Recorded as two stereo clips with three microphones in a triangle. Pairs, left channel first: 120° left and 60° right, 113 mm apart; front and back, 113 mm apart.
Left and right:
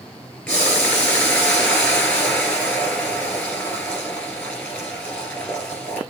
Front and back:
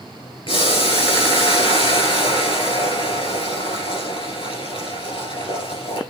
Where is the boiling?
40° left, 2 m.